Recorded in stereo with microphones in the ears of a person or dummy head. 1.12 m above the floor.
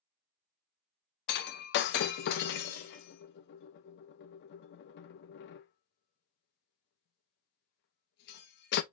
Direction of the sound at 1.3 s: 65° left (ahead or behind).